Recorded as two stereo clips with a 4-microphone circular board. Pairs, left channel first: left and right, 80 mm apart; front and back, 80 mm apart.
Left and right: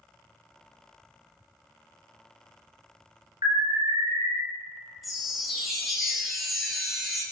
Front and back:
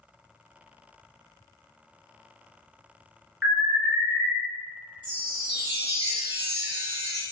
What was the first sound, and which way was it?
An alarm, 105° right.